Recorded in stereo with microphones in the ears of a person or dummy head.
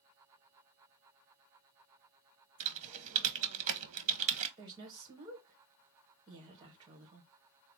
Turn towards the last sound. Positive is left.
turn(degrees=-25)  # may be behind; listen again after turning